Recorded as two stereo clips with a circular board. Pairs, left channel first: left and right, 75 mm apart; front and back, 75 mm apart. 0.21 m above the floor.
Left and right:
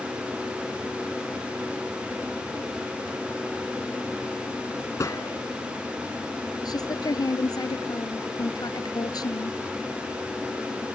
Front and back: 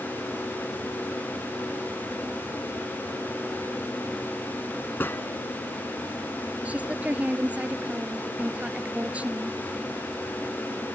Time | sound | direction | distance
5.0 | a gunshot | 55° left | ?
6.7 | a woman speaking | 110° left | ?